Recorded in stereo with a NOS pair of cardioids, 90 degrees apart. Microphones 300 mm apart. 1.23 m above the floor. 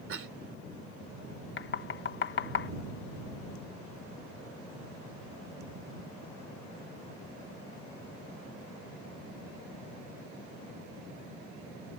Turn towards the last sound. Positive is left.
turn(degrees=40)